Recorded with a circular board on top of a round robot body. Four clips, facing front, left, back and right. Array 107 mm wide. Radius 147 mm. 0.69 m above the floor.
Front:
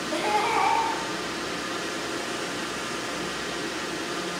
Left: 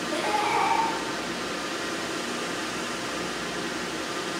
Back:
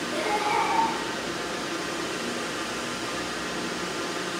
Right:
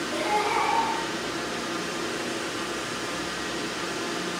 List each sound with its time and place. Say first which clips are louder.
0.1 s laughter: even, front 2 dB; 15° left, 2.5 m